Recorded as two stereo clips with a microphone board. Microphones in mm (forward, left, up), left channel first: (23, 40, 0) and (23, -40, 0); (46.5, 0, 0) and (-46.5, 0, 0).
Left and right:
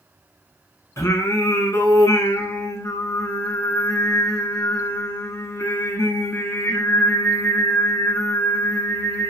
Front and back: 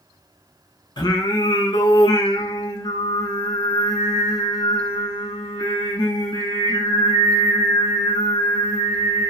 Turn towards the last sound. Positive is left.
turn(degrees=35)